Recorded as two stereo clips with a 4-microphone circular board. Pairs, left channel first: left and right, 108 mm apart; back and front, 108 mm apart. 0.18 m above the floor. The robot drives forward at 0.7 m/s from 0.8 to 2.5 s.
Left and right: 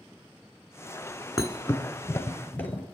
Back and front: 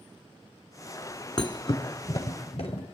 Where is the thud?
145° left, 1.1 m; by 2.8 s 160° left, 1.8 m.